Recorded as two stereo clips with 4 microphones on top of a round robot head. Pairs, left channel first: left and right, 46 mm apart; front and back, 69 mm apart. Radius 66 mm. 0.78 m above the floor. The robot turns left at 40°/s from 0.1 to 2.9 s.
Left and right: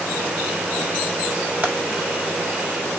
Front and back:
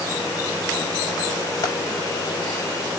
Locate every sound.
1.6 s frying: 45° right, 5 m; by 1.7 s 50° right, 5 m